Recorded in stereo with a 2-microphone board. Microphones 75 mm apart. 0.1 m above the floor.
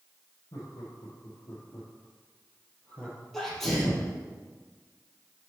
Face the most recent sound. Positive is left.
turn(degrees=5)  # may be behind; listen again after turning